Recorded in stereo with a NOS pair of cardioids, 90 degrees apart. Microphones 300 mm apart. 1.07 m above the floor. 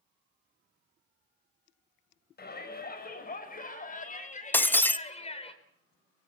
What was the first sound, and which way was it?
A shout, 35° left.